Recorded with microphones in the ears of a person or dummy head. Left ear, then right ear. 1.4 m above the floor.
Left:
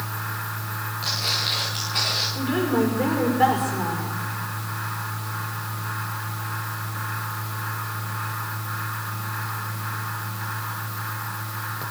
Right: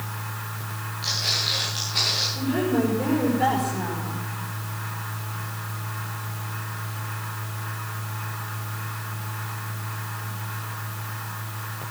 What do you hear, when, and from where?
1.0 s footsteps: 20° left (ahead or behind), 9.5 m; by 2.2 s 15° left (ahead or behind), 10.5 m
2.4 s a woman speaking: 35° left (ahead or behind), 5.5 m